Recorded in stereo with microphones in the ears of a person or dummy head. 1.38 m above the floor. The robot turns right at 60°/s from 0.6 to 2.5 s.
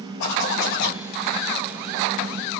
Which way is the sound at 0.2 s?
70° left (ahead or behind).